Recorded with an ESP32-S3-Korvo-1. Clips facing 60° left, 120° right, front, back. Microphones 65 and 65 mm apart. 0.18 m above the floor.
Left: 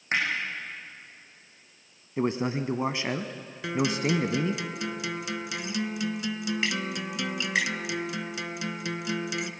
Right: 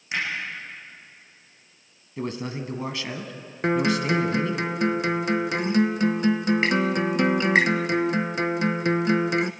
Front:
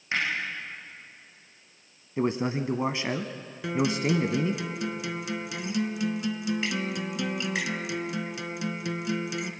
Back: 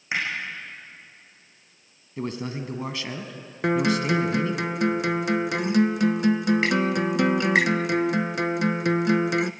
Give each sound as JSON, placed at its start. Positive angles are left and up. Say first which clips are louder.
{"t": 0.1, "sound": "hammering", "louder": "left 1 dB, back 1 dB", "azimuth_deg": 110, "distance_m": 10.0}
{"t": 2.2, "sound": "a man speaking", "louder": "left 3 dB, front 4 dB", "azimuth_deg": 30, "distance_m": 1.1}
{"t": 3.6, "sound": "a guitar", "louder": "right 5 dB, back 4 dB", "azimuth_deg": -160, "distance_m": 0.8}